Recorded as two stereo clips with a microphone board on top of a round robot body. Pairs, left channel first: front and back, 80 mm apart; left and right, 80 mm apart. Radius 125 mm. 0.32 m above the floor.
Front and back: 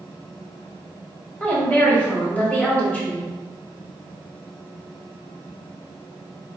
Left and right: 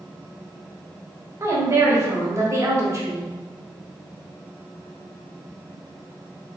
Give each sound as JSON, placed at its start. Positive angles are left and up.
{"t": 1.4, "sound": "a woman speaking", "azimuth_deg": -65, "distance_m": 1.8}